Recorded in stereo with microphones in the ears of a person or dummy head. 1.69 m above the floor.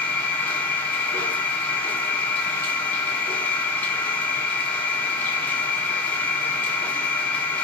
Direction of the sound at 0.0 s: 20° left (ahead or behind).